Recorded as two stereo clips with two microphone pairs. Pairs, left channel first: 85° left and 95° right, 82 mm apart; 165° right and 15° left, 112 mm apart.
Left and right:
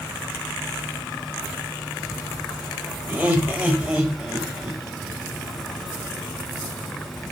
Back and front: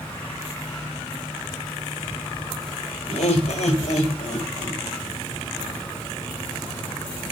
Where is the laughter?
165° right, 4 m; by 4.8 s 175° right, 5 m.